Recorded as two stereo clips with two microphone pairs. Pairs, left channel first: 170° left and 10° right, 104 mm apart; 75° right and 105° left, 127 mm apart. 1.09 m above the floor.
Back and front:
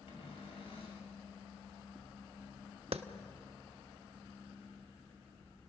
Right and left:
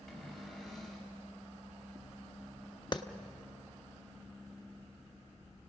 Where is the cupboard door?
165° right, 5.5 m.